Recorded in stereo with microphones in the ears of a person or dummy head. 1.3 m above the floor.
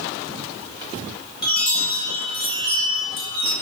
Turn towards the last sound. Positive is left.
turn(degrees=20)  # may be behind; listen again after turning